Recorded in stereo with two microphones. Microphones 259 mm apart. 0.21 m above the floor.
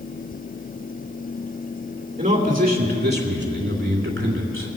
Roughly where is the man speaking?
Right.